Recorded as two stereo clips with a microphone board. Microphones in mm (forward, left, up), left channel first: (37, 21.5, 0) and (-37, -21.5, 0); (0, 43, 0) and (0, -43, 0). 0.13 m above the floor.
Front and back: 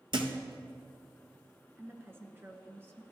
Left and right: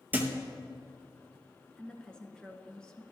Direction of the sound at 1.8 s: 165° left.